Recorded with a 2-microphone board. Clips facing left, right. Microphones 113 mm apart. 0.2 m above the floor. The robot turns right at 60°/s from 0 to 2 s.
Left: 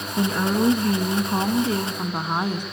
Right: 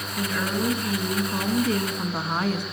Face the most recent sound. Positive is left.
turn(degrees=155)